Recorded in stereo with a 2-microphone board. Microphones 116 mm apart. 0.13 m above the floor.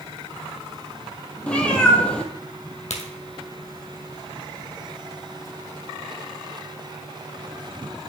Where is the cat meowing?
10° left (ahead or behind), 0.9 m.